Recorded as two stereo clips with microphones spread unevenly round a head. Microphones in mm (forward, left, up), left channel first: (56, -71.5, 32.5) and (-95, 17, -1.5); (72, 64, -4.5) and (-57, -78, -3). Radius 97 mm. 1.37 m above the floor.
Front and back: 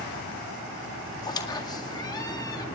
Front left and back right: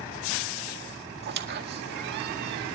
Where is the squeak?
95° right, 1.9 m.